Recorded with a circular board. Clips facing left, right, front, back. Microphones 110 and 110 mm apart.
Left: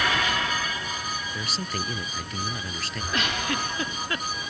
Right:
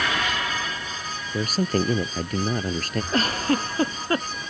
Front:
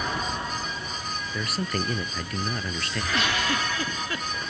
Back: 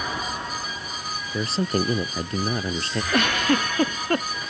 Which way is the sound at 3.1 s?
140° right.